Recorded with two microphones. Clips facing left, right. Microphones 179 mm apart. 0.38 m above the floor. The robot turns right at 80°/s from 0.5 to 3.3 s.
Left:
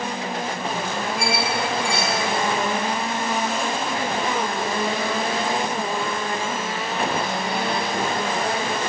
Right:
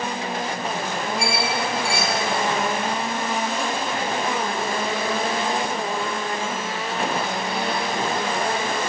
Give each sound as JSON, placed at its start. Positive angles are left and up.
{"t": 1.2, "sound": "a squeak", "side_deg": -40, "distance_m": 1.1}